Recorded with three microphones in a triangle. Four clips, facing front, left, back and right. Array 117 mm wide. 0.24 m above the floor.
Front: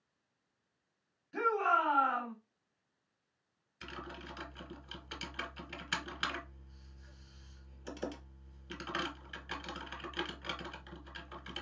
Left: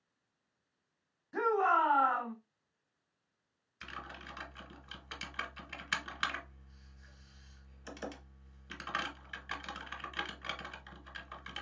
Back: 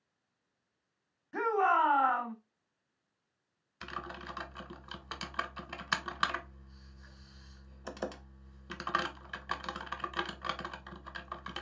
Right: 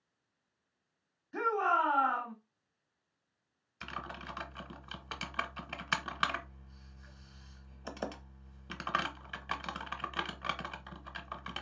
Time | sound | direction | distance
1.3 | a shout | 160° left | 1.1 m
3.8 | typing on a keyboard | 130° right | 0.7 m